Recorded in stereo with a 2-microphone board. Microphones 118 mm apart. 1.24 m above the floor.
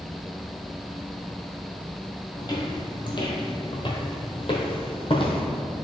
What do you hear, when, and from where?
2.4 s footsteps: 35° left (ahead or behind), 1.7 m; by 5.4 s 45° left (ahead or behind), 1.9 m